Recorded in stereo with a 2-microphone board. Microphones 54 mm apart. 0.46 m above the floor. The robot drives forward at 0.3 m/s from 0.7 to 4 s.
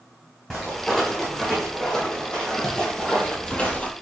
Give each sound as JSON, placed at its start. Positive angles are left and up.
{"t": 0.5, "sound": "footsteps", "side_deg": 10, "distance_m": 1.9}